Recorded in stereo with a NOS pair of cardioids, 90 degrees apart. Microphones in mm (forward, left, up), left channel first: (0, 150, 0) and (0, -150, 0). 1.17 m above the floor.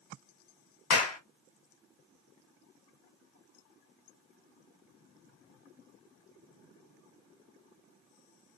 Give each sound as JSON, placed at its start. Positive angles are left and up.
{"t": 0.9, "sound": "a clap", "azimuth_deg": 60, "distance_m": 1.1}